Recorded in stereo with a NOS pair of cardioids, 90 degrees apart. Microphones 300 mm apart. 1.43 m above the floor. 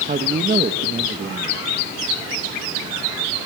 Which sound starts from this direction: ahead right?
A man speaking, at 0.1 s.